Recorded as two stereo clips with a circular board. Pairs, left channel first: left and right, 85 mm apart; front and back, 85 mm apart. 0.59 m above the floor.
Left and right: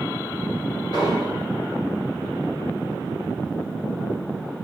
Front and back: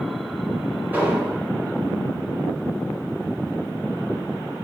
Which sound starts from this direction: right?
An explosion, at 0.9 s.